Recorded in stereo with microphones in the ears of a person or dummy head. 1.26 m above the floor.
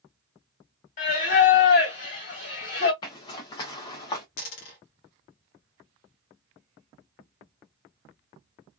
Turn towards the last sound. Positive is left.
turn(degrees=50)  # may be behind; listen again after turning